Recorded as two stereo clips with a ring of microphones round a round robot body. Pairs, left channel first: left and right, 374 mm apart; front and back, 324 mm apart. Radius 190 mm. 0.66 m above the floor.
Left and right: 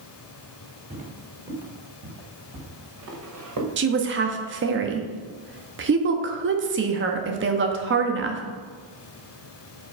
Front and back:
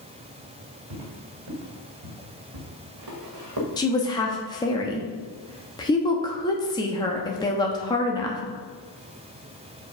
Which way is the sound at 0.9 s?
160° right.